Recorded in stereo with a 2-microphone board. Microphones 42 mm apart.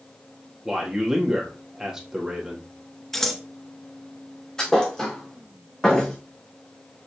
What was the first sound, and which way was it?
A man speaking, 10° right (ahead or behind).